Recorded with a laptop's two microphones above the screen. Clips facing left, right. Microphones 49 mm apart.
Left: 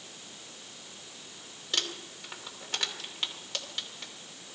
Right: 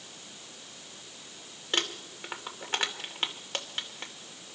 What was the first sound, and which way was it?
Crumpling, 35° right (ahead or behind).